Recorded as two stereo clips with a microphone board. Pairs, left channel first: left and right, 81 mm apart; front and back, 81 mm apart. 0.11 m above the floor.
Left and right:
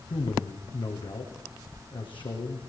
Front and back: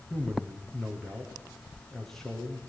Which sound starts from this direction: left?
A man speaking, at 0.1 s.